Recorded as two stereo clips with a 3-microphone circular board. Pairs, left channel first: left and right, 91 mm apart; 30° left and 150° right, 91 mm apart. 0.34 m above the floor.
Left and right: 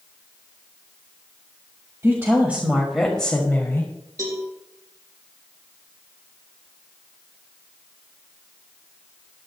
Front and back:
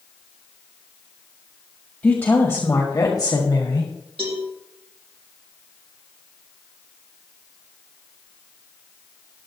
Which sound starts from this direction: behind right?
A cowbell, at 4.2 s.